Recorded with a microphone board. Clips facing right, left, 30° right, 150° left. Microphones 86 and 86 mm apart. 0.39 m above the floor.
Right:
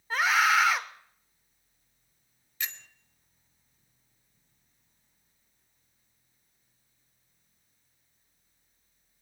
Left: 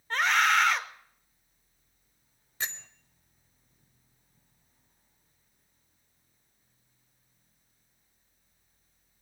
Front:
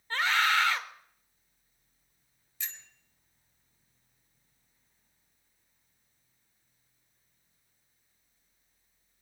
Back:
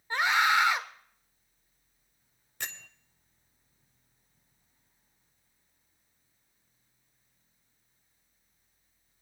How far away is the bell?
About 0.8 m.